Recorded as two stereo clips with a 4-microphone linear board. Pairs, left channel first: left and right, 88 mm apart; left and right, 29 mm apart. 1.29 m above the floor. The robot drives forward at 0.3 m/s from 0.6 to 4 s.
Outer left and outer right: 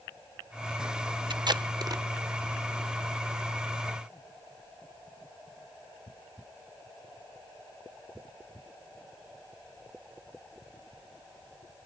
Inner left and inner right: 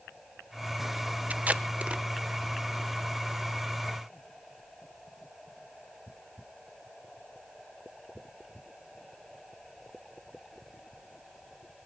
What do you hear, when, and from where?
1.3 s tape being pulled: 60° right (ahead or behind), 0.5 m; by 2.0 s 45° right (ahead or behind), 0.6 m